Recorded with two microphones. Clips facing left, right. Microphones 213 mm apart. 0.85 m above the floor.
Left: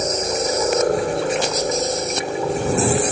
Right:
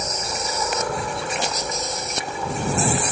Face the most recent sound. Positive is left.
turn(degrees=40)  # may be behind; listen again after turning